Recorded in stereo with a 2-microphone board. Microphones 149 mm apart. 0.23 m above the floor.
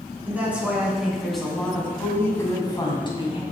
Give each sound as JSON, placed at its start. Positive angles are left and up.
{"t": 0.2, "sound": "a woman speaking", "side_deg": -10, "distance_m": 2.5}